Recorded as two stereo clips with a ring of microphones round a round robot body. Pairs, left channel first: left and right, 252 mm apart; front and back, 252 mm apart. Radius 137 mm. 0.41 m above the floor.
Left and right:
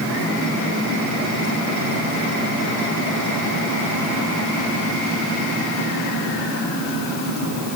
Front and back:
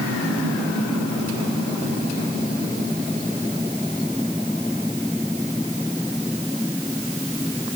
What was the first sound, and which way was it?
Only background noise.